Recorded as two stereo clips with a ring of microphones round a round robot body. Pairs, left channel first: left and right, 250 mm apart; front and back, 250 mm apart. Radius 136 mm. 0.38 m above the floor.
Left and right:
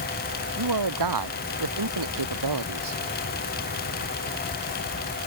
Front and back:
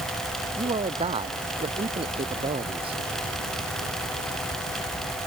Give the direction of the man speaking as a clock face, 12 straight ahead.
4 o'clock.